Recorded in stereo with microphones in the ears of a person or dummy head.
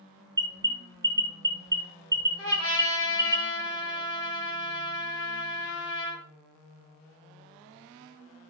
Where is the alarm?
15° right (ahead or behind), 0.9 m.